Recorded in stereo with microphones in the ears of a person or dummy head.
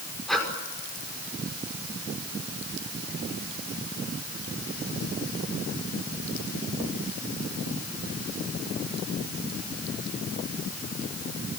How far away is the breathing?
About 6 m.